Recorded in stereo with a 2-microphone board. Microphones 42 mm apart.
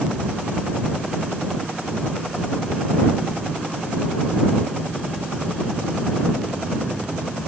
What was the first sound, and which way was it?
Only background noise.